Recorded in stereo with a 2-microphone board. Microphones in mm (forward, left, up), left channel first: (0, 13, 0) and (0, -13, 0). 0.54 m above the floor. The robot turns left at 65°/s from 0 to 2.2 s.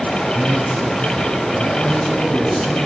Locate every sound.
0.3 s a man speaking: 125° right, 3.5 m; by 2.9 s 110° left, 3.5 m